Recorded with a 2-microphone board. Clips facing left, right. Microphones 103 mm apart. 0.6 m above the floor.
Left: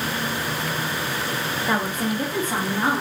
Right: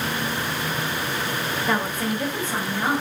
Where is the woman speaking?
5° left (ahead or behind), 0.6 m; by 3.0 s 55° left (ahead or behind), 1.0 m.